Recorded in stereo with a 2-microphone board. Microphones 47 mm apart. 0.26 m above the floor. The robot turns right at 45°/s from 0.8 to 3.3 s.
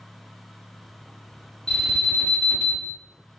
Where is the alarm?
20° left (ahead or behind), 1.1 m; by 2.9 s 45° left (ahead or behind), 1.1 m.